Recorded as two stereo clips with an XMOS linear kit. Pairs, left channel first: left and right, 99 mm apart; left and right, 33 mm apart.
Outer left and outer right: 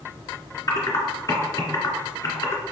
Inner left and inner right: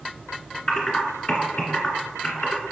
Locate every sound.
0.7 s typing on a keyboard: 30° left (ahead or behind), 1.8 m